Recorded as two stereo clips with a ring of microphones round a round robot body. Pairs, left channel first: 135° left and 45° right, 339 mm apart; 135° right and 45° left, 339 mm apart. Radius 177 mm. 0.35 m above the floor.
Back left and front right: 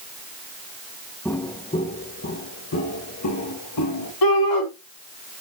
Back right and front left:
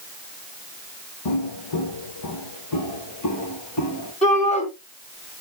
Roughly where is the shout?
Behind left.